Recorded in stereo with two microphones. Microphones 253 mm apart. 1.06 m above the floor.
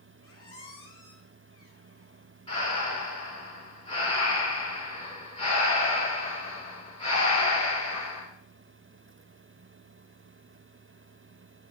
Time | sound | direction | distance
0.2 | a squeak | 60° right (ahead or behind) | 2.5 m
2.5 | breathing | 25° left (ahead or behind) | 4 m